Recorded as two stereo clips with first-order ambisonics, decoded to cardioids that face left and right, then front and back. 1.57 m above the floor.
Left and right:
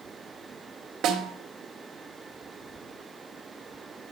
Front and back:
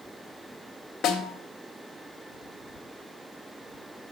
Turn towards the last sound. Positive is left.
turn(degrees=-55)